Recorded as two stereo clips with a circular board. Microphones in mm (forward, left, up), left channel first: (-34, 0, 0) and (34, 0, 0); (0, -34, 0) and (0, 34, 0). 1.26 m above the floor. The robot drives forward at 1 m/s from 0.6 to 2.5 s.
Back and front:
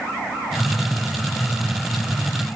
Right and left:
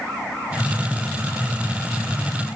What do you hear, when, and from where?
Only background noise.